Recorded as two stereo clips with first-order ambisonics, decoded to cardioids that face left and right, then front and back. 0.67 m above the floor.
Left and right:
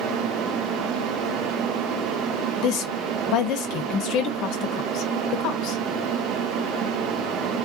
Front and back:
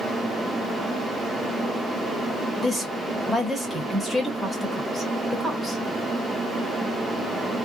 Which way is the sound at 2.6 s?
95° left.